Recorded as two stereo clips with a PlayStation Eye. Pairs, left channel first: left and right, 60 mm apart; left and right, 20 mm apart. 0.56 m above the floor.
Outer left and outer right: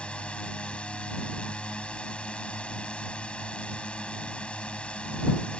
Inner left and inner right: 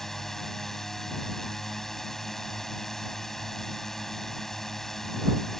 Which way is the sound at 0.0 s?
20° left (ahead or behind).